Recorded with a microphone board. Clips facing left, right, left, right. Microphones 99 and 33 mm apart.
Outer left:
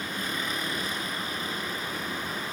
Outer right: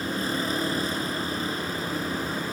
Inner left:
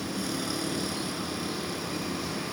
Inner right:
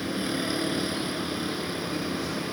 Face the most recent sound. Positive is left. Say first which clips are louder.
# outer right 5 dB, inner right 3 dB
turn(degrees=-30)  # may be behind; listen again after turning